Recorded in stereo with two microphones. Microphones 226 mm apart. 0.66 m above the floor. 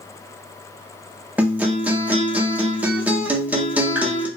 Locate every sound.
1.4 s a guitar: 5° right (ahead or behind), 0.5 m